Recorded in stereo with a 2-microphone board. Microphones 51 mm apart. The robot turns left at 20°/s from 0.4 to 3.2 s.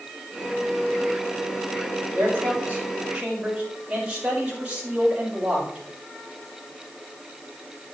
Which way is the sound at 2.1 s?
45° right (ahead or behind).